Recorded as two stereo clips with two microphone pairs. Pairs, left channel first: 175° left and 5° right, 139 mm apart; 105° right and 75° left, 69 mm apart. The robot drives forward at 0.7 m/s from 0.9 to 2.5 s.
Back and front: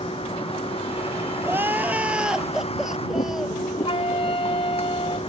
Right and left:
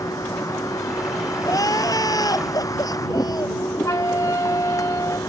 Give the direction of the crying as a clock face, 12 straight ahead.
3 o'clock.